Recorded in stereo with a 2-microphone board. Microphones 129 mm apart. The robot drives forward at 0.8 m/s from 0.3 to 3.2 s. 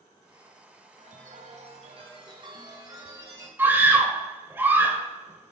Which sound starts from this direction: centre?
A scream, at 3.6 s.